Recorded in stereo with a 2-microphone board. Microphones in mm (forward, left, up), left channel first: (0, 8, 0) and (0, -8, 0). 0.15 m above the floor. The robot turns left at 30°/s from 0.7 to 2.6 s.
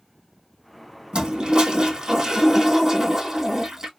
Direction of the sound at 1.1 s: 100° right.